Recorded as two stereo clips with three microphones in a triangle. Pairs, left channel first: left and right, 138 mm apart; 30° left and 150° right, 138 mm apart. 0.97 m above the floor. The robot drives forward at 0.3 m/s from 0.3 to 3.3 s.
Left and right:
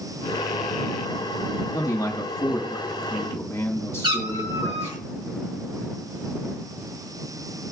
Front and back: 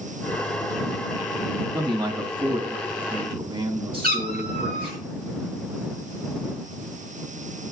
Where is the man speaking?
155° left, 1.4 m; by 5.0 s 160° left, 1.8 m.